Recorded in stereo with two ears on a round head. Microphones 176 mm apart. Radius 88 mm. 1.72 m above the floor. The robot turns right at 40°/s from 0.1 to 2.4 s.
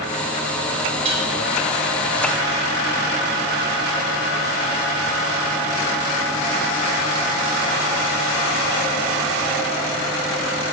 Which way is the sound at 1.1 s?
35° right (ahead or behind).